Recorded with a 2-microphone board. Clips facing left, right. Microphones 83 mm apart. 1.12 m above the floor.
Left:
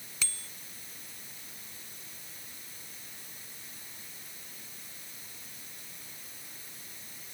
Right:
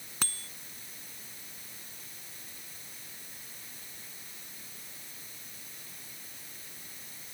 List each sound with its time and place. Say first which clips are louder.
0.2 s a bicycle bell: right 3 dB; 55° right (ahead or behind)